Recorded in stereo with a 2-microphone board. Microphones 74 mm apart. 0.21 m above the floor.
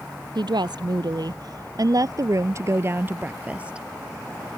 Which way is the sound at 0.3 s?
75° right (ahead or behind).